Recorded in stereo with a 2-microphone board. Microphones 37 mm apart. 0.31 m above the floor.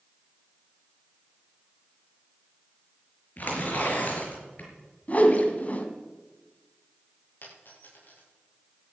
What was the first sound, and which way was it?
Tearing paper, 50° left (ahead or behind).